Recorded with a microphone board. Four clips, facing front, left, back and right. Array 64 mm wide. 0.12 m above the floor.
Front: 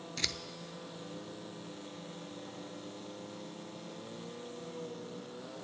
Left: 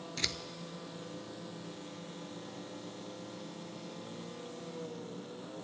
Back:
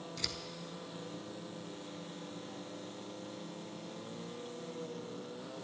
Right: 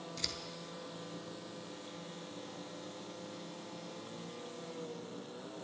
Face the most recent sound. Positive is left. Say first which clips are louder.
# left 9 dB, front 6 dB
turn(degrees=50)